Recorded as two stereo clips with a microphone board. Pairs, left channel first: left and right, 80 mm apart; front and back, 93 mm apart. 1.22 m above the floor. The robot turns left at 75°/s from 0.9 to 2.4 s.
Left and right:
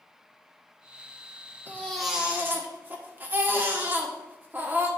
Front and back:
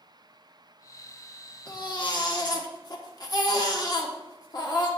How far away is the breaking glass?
No breaking glass in this recording.